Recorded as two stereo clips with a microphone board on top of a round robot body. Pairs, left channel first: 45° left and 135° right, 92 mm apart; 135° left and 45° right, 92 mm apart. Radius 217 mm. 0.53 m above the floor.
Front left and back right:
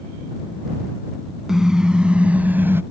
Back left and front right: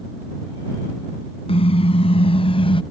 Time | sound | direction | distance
1.5 | a car horn | 140° left | ?